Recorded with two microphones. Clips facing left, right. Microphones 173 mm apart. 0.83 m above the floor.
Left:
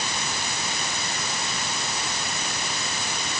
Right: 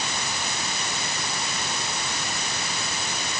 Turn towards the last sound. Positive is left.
No sound to turn to.